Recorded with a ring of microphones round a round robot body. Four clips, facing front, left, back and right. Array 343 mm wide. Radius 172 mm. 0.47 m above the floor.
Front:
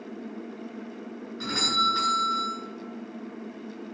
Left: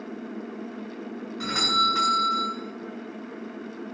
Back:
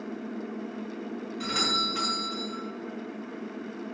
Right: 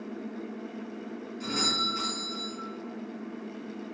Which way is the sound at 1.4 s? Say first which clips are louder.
Left 7 dB, front 4 dB; 80° left.